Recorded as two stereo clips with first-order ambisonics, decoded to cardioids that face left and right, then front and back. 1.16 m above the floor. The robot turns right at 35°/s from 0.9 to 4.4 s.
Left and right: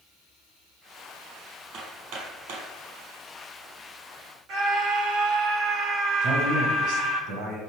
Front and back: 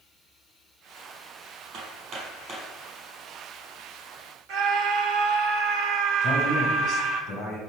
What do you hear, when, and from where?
1.7 s hammering: 140° right, 5 m; by 2.7 s 105° right, 5 m
4.5 s a scream: 135° right, 3 m
6.2 s a man speaking: 50° right, 7.5 m